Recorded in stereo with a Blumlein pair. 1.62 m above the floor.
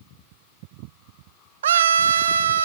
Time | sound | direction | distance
1.6 | a scream | 65° right | 0.7 m